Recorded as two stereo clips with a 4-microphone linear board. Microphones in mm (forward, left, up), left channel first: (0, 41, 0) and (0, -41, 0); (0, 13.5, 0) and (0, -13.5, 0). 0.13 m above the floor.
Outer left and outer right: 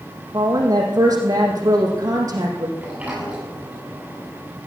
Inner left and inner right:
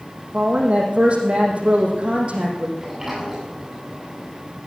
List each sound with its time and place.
0.3 s a woman speaking: 45° right (ahead or behind), 5 m
2.8 s a sliding door: 15° right (ahead or behind), 7.5 m